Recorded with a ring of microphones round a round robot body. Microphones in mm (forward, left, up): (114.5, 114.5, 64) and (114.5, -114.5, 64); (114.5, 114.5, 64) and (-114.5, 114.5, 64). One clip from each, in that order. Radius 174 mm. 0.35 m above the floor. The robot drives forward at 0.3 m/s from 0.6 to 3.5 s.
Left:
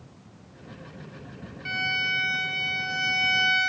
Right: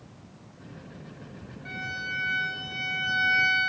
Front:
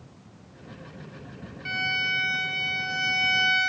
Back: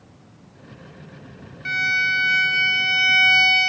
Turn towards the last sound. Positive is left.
turn(degrees=150)